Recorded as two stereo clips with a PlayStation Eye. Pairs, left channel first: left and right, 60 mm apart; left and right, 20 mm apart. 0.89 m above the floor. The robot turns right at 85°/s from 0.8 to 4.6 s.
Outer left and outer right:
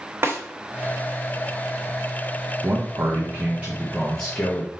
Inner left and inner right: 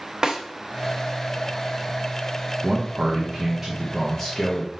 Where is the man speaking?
120° right, 0.9 m; by 4.7 s 50° left, 0.9 m.